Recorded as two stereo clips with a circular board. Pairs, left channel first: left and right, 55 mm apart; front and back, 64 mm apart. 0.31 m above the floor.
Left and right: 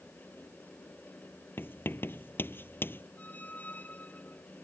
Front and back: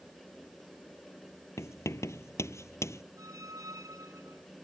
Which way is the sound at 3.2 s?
150° left.